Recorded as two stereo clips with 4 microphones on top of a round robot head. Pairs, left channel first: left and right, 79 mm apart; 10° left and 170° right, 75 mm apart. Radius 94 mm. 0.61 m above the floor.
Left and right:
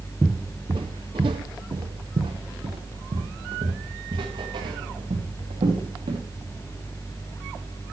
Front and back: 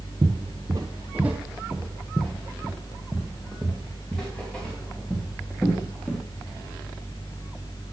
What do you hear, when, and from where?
0.2 s footsteps: 175° right, 0.6 m; by 6.2 s 70° right, 3.5 m